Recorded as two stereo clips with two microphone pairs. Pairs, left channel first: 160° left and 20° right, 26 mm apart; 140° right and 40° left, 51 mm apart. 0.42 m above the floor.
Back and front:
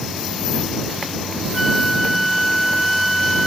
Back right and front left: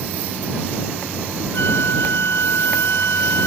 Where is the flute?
110° right.